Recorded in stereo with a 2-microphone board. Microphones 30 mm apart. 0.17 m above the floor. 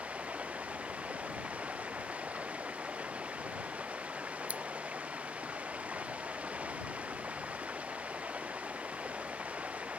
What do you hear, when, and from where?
0.0 s running water: 45° right (ahead or behind)
4.5 s scissors: 45° right (ahead or behind)